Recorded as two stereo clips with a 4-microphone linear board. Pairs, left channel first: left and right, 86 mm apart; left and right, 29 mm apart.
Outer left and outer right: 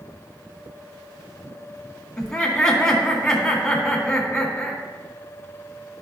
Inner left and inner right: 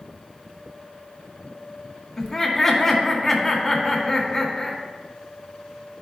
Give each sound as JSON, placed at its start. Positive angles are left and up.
{"t": 2.2, "sound": "laughter", "side_deg": 10, "distance_m": 2.0}